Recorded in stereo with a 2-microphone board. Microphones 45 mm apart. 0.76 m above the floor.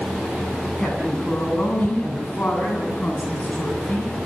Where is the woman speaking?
25° left (ahead or behind), 8 m; by 4.1 s 40° left (ahead or behind), 8 m.